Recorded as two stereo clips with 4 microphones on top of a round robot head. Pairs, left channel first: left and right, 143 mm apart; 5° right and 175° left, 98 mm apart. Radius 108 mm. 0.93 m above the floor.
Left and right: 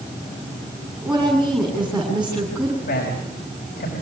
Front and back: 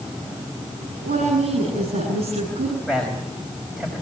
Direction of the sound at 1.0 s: 170° right.